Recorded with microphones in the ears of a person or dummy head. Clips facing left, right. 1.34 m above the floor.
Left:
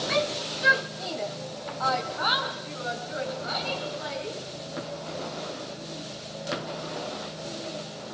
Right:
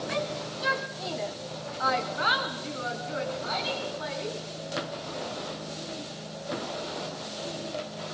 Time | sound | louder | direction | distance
0.1 | a shout | left 6 dB | 55° left (ahead or behind) | 1.8 m